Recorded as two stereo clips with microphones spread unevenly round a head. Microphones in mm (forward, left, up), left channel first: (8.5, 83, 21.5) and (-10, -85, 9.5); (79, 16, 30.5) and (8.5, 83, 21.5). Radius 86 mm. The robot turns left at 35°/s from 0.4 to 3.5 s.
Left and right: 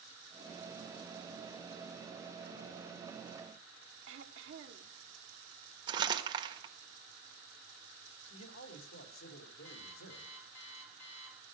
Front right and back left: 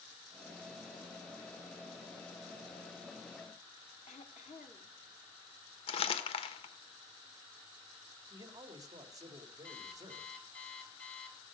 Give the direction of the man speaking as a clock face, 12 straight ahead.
9 o'clock.